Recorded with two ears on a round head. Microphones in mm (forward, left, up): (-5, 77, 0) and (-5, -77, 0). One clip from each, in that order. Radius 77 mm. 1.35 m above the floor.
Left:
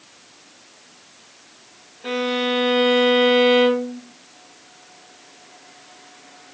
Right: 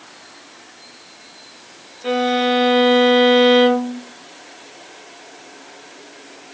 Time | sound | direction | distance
2.0 | a violin | centre (ahead or behind) | 0.5 m